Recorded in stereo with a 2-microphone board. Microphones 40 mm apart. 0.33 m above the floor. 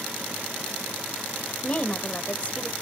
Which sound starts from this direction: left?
A woman speaking, at 1.6 s.